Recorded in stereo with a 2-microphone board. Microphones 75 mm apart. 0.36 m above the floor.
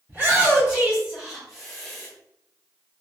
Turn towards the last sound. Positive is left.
turn(degrees=10)  # may be behind; listen again after turning